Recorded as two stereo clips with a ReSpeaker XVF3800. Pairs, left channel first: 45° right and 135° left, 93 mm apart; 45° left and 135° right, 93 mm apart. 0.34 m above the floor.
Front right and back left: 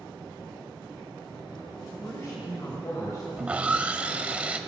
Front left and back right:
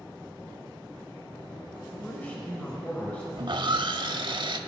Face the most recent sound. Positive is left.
turn(degrees=-150)